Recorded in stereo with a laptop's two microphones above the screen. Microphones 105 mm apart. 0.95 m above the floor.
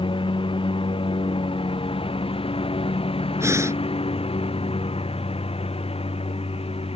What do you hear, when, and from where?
0.0 s a lawn mower: 60° left (ahead or behind); by 7.0 s 90° left
3.4 s breathing: 30° right (ahead or behind)